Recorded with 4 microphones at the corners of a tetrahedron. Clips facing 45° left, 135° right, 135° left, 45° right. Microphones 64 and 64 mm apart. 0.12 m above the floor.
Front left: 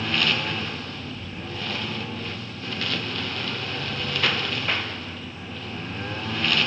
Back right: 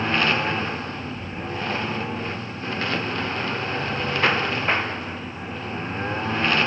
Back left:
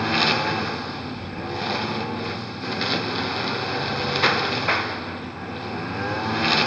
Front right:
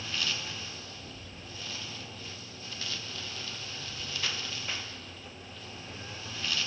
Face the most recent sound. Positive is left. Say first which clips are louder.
# back right 4 dB, back left 15 dB
turn(degrees=165)